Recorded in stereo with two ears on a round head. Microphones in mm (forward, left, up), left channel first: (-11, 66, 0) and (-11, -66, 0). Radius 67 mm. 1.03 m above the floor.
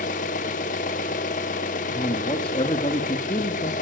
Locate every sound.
0.0 s an engine running: 55° left (ahead or behind), 1.3 m
1.9 s a man speaking: 35° left (ahead or behind), 1.4 m